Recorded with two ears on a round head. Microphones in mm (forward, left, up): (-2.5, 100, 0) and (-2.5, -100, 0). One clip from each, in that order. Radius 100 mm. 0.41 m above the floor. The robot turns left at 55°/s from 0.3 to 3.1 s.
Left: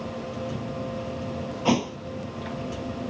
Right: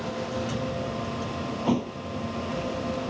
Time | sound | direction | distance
1.6 | a thud | 60° left (ahead or behind) | ?